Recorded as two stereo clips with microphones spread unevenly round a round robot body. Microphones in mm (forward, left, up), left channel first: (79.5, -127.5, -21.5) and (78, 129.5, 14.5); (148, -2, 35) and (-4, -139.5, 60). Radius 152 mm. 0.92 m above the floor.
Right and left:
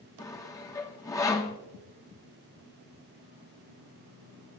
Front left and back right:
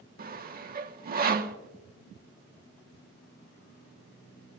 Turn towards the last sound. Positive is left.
turn(degrees=-150)